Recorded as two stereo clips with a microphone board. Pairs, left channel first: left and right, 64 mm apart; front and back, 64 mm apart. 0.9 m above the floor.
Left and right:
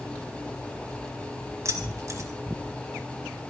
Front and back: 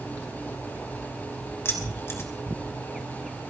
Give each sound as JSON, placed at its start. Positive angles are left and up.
{"t": 1.6, "sound": "keys jangling", "azimuth_deg": -50, "distance_m": 2.5}